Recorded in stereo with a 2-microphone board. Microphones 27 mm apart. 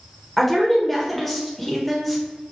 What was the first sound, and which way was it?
A woman speaking, 5° left (ahead or behind).